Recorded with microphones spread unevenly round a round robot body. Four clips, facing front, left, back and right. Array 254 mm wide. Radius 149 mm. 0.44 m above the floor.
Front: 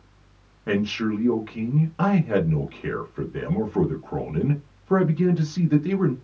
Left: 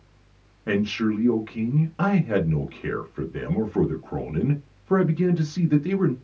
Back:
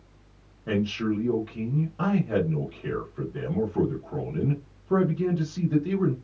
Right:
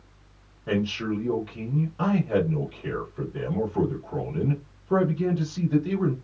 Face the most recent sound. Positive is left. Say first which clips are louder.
# left 3 dB, front 2 dB
turn(degrees=50)